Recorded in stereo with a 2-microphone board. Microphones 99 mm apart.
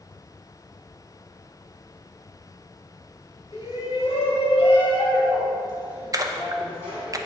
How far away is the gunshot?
I don't hear a gunshot.